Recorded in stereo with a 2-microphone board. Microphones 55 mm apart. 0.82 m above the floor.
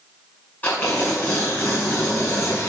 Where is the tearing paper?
35° left (ahead or behind), 6.5 m.